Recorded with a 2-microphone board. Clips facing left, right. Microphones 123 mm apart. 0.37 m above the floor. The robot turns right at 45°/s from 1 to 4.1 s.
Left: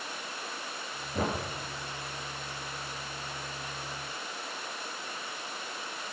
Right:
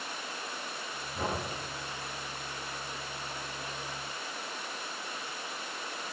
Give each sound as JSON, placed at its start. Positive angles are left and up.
{"t": 1.1, "sound": "knocking", "side_deg": 80, "distance_m": 4.5}